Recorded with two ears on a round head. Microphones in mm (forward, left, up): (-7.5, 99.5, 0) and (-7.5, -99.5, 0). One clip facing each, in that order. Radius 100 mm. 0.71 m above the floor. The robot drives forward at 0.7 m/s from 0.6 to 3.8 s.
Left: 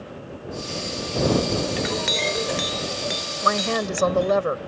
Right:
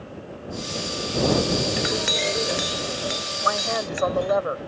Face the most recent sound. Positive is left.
turn(degrees=40)  # may be behind; listen again after turning